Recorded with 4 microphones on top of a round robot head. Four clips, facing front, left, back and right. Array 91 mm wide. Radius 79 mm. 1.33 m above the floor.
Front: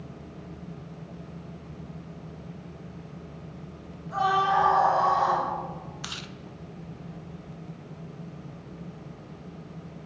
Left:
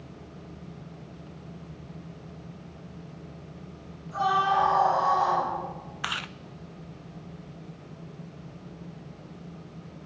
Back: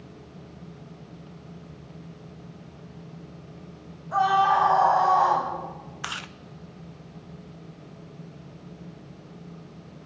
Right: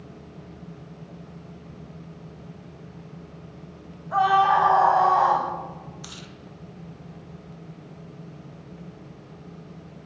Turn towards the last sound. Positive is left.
turn(degrees=125)